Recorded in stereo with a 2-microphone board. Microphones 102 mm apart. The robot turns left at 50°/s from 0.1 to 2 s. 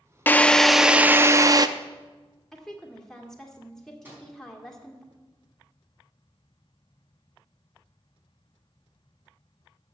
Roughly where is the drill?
Ahead.